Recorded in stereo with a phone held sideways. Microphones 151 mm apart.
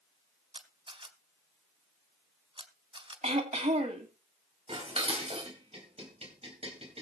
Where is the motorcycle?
I don't hear a motorcycle.